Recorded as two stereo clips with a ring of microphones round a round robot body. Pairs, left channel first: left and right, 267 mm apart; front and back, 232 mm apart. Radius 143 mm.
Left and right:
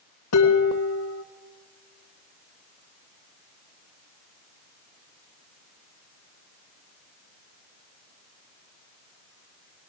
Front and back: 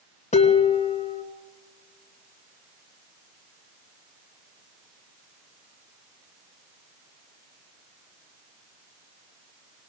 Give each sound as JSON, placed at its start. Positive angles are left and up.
{"t": 0.3, "sound": "dishes clattering", "azimuth_deg": 60, "distance_m": 2.5}